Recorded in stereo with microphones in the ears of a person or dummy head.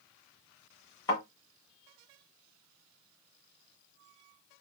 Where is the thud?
20° left (ahead or behind), 1.5 m.